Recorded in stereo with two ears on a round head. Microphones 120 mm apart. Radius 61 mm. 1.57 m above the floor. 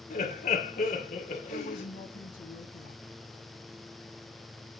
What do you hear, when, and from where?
0.1 s laughter: 55° left (ahead or behind), 1.3 m
1.5 s a woman speaking: 75° left (ahead or behind), 1.1 m